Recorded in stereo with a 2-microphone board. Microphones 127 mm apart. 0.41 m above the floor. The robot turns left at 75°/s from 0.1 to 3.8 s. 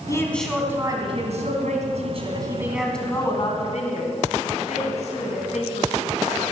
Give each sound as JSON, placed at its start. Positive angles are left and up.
{"t": 0.1, "sound": "a woman speaking", "azimuth_deg": 30, "distance_m": 2.5}